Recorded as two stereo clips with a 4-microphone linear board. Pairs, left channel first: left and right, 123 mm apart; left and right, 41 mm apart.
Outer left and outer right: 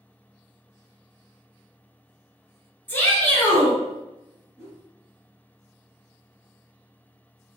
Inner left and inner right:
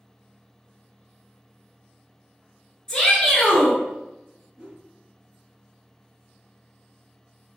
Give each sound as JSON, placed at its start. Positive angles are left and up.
{"t": 2.9, "sound": "a shout", "side_deg": 15, "distance_m": 1.4}
{"t": 4.6, "sound": "a whoosh", "side_deg": -20, "distance_m": 1.9}